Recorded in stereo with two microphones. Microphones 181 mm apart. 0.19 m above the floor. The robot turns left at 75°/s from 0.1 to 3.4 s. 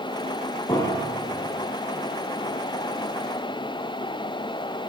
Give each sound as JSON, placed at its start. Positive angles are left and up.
{"t": 0.7, "sound": "a piano", "azimuth_deg": 25, "distance_m": 6.5}